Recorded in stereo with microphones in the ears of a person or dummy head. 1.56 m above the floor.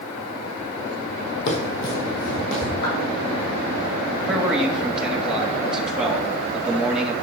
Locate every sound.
1.5 s running footsteps: 60° left (ahead or behind), 3 m; by 2.7 s 70° left (ahead or behind), 4.5 m
2.8 s a clap: 65° left (ahead or behind), 5 m
4.3 s a man speaking: 5° right (ahead or behind), 2.5 m